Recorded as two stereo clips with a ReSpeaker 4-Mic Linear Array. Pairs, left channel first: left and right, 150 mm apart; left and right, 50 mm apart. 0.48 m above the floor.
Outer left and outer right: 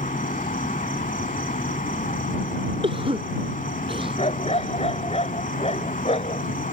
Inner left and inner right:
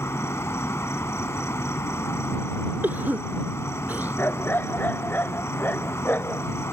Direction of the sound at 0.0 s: 65° left (ahead or behind).